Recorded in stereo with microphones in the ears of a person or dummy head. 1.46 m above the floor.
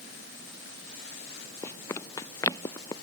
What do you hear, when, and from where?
1.6 s running footsteps: 15° left (ahead or behind); by 2.9 s 20° left (ahead or behind)